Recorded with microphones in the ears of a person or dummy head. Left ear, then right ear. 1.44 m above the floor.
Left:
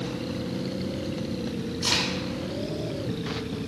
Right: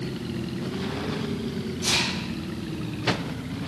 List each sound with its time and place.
1.8 s a crack: 45° left (ahead or behind), 2.0 m